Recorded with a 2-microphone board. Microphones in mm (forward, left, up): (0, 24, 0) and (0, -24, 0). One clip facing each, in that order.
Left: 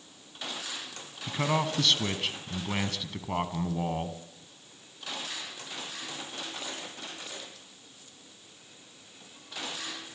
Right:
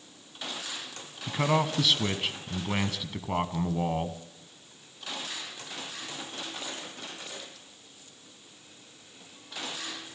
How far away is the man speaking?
About 1.3 m.